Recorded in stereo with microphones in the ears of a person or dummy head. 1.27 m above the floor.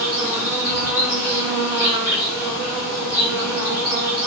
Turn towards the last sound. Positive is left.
turn(degrees=-10)  # may be behind; listen again after turning